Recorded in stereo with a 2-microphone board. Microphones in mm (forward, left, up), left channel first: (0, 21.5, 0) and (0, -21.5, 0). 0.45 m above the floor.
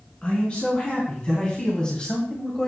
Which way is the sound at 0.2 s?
25° left (ahead or behind).